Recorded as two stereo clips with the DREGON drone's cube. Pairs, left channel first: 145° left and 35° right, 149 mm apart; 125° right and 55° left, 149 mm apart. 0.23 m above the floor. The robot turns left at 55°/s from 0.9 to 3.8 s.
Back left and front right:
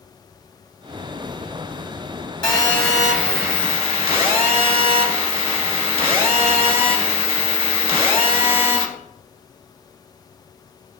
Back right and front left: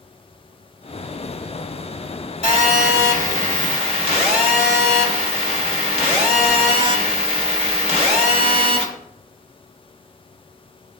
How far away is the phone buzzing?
About 2.0 m.